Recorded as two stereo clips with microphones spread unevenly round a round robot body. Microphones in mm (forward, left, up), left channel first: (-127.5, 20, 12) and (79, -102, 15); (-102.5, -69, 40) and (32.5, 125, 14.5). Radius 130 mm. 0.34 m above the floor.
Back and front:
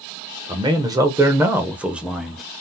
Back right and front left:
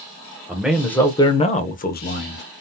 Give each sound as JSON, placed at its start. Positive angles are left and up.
{"t": 0.5, "sound": "a man speaking", "azimuth_deg": 5, "distance_m": 0.9}